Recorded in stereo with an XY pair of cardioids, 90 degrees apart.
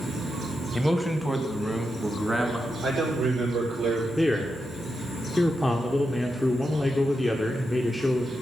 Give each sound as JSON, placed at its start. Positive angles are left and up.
{"t": 0.7, "sound": "a man speaking", "azimuth_deg": 10, "distance_m": 1.7}
{"t": 2.8, "sound": "a man speaking", "azimuth_deg": -70, "distance_m": 6.0}
{"t": 4.2, "sound": "a man speaking", "azimuth_deg": 10, "distance_m": 1.4}